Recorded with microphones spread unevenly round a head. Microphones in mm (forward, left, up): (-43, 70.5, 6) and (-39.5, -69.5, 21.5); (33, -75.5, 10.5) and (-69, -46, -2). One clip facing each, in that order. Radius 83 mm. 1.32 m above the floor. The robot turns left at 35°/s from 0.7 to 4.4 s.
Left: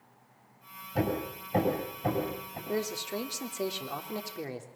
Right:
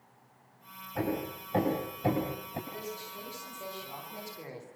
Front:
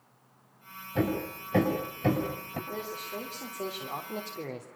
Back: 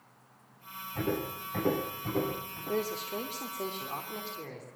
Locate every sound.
0.9 s hammering: 30° left, 7.5 m; by 2.6 s 30° right, 7.5 m
2.7 s a man speaking: 105° left, 3 m; by 4.7 s 45° left, 3 m